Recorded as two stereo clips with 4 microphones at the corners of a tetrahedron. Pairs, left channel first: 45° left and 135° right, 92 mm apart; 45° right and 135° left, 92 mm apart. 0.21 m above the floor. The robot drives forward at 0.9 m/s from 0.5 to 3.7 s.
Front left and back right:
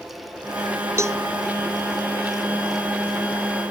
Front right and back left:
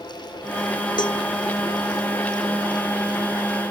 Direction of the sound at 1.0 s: 80° right.